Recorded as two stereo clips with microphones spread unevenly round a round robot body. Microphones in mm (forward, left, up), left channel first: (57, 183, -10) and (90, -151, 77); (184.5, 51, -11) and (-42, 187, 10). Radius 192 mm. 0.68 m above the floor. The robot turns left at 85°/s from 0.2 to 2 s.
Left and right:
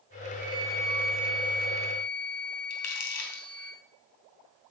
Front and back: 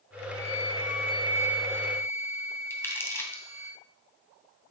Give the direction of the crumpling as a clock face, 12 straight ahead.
10 o'clock.